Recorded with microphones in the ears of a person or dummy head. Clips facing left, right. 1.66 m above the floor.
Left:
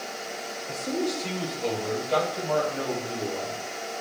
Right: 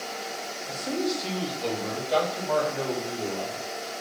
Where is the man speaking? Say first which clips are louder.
Even; 5° right (ahead or behind), 1.7 m; by 3.6 s centre (ahead or behind), 3 m.